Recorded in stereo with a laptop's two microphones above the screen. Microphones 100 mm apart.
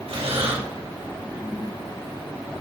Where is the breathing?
85° right, 5.5 m.